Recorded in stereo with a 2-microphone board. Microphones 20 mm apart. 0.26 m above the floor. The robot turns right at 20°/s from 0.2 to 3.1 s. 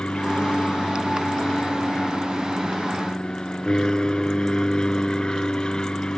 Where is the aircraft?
75° left; by 6.2 s 135° left.